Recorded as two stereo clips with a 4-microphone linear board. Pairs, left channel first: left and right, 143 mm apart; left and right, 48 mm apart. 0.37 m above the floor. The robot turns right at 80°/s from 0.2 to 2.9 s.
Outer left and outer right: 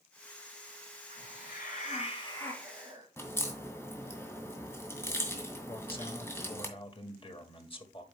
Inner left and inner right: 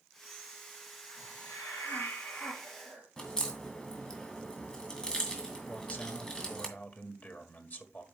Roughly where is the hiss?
Ahead left.